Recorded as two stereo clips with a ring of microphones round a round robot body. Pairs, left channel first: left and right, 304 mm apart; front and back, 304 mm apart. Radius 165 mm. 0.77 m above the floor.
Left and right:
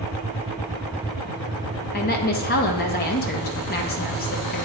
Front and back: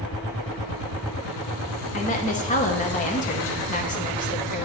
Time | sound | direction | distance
1.9 | a woman speaking | 50° left | 0.7 m